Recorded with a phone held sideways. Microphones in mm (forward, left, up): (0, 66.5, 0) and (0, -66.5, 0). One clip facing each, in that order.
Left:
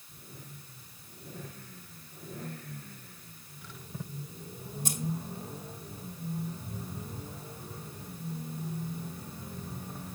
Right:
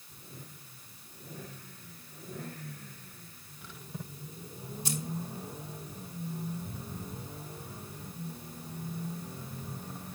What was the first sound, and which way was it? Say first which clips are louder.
Keys jangling: right 2 dB; 45° left (ahead or behind).